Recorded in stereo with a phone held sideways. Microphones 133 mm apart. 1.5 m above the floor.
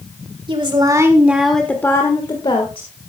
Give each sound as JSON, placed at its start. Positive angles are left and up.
{"t": 0.5, "sound": "a woman speaking", "side_deg": -40, "distance_m": 1.9}